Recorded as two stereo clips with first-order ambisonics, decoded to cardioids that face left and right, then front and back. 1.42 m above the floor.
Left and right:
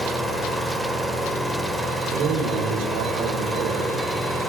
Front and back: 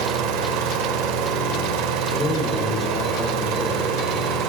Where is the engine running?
Straight behind, 2.5 m.